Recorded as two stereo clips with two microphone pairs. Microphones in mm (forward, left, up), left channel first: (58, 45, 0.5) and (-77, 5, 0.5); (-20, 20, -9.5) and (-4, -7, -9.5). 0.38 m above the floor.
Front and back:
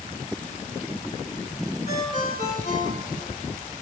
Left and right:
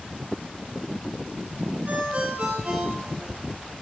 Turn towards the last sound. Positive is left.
turn(degrees=-20)